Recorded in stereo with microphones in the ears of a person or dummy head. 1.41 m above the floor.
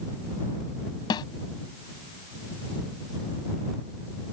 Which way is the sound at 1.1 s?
25° left (ahead or behind).